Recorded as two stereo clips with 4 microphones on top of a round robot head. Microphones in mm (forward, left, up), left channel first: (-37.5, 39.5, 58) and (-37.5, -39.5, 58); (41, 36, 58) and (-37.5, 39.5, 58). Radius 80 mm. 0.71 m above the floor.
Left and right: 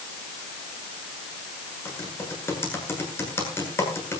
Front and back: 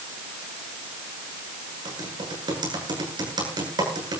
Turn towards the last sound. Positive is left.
turn(degrees=150)